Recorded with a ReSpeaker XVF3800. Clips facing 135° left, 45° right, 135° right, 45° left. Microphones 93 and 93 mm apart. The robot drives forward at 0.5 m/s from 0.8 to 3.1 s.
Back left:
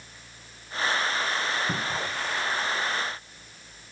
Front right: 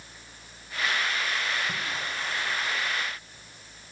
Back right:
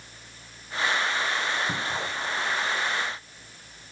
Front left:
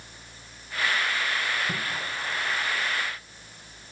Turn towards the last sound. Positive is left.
turn(degrees=160)